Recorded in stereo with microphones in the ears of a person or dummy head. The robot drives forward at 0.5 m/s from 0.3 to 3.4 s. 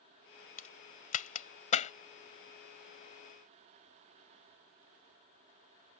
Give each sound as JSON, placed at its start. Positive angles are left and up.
{"t": 0.6, "sound": "a crack", "side_deg": 50}